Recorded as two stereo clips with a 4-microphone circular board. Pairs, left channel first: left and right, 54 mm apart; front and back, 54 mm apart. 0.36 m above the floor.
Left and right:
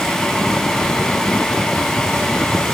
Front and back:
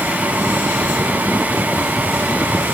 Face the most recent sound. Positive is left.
No sound to turn to.